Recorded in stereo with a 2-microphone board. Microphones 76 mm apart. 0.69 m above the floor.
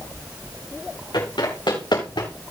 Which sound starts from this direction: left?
Running footsteps, at 1.1 s.